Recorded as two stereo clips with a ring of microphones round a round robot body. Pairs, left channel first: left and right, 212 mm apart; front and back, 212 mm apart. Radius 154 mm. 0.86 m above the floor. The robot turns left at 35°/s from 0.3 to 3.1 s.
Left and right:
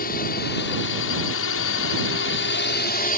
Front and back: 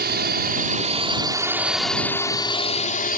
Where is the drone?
145° left; by 3.2 s 45° left.